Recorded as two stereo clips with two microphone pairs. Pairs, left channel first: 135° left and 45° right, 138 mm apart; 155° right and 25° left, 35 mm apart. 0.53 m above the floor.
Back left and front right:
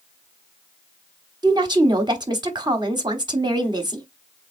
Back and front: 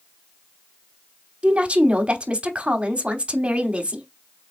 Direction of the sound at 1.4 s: 10° right.